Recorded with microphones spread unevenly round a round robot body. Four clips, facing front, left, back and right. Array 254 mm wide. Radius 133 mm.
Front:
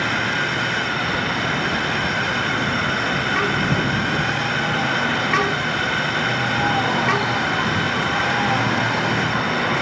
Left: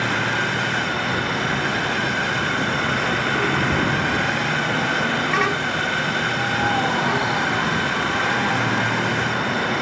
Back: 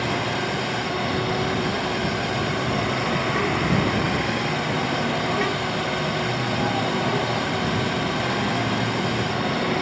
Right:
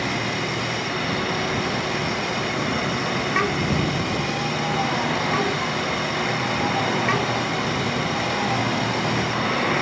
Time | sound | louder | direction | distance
0.0 | a drone | left 3 dB, front 2 dB | 160° right | ?